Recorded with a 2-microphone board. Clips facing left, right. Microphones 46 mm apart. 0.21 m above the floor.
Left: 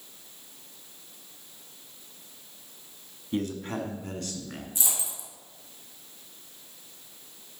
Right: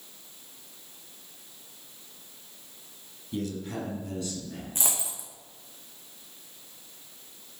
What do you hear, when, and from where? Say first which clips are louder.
3.3 s a man speaking: left 3 dB; 40° left (ahead or behind), 1.5 m; by 4.7 s 60° left (ahead or behind), 2 m
4.8 s a dropped coin: right 2 dB; 50° right (ahead or behind), 2.5 m